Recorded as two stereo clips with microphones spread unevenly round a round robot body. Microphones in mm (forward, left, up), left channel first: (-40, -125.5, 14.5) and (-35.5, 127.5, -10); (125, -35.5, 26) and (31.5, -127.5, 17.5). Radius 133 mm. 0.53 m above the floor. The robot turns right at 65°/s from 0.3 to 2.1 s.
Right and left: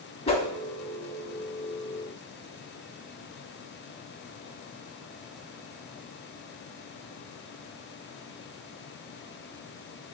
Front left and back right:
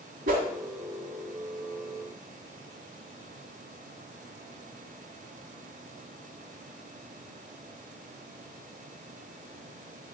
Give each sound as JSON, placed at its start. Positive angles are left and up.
{"t": 0.3, "sound": "a whoosh", "azimuth_deg": -155, "distance_m": 0.8}